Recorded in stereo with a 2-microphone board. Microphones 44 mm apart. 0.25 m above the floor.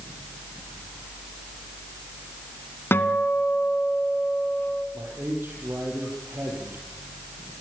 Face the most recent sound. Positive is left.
turn(degrees=-60)  # may be behind; listen again after turning